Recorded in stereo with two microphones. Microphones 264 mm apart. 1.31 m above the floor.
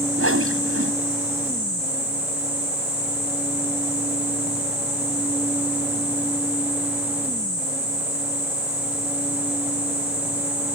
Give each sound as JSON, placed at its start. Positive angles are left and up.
{"t": 0.2, "sound": "a whoosh", "side_deg": -55}